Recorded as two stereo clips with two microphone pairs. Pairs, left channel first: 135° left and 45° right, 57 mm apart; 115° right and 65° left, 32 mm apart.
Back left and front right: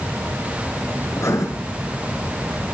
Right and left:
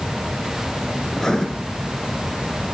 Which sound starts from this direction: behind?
Writing, at 1.1 s.